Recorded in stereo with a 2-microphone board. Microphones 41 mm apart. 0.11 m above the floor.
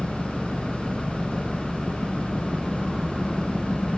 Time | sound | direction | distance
0.0 | an engine running | centre (ahead or behind) | ?